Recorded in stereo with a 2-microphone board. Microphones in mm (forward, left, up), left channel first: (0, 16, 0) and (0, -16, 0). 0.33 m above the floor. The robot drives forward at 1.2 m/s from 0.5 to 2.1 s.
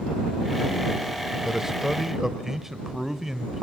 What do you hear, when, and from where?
1.4 s a man speaking: 15° right (ahead or behind), 0.9 m; by 3.6 s 10° right (ahead or behind), 1.0 m